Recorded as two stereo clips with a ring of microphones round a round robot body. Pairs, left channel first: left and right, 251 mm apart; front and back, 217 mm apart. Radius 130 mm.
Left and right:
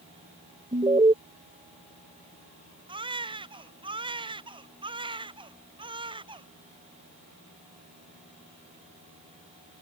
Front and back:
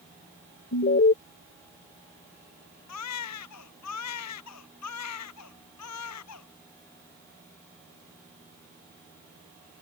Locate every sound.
0.7 s an alarm: 25° right
2.9 s a baby crying: 20° right